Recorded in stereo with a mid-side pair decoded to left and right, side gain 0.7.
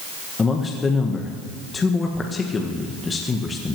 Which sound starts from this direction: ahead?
A man speaking, at 0.4 s.